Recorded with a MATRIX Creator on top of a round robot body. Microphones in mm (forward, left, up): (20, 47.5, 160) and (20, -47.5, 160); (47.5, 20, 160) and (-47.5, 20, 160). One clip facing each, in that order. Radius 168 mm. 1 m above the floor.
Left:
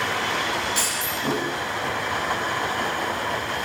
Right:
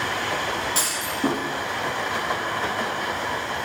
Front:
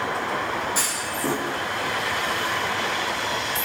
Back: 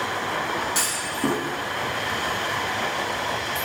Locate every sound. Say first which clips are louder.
0.8 s a clunk: right 1 dB, even; 145° right, 2 m